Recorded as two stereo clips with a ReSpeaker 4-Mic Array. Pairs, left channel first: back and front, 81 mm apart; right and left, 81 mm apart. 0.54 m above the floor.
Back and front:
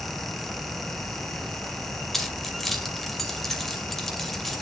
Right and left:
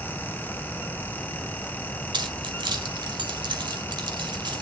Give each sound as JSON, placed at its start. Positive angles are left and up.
{"t": 2.1, "sound": "keys jangling", "azimuth_deg": 90, "distance_m": 1.9}